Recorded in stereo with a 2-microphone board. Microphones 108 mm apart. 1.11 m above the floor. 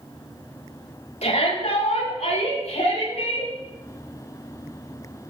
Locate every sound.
1.2 s a shout: 80° left, 3.5 m; by 3.5 s 75° left (ahead or behind), 5 m